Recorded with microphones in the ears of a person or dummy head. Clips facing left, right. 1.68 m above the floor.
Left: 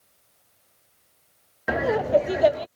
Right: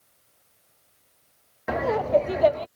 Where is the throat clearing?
No throat clearing in this recording.